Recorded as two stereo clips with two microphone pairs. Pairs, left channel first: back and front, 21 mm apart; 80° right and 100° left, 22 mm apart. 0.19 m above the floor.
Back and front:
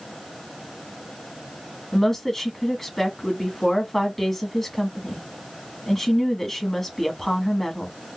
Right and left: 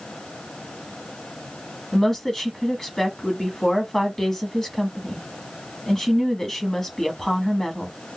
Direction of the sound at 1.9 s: 125° right.